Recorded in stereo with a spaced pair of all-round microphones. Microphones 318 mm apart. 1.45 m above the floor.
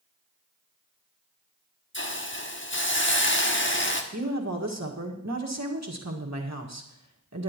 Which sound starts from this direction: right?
A woman speaking, at 4.1 s.